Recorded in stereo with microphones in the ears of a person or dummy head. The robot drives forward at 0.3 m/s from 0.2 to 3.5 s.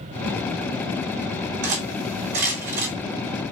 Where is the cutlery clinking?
65° right (ahead or behind), 2.5 m; by 2.9 s 55° right (ahead or behind), 3 m.